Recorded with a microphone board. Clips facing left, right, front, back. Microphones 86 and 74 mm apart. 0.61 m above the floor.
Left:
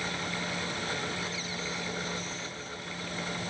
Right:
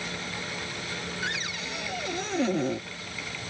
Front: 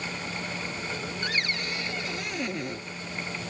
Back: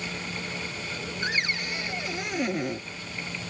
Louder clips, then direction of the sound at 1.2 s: Right 2 dB, back 2 dB; 110° right.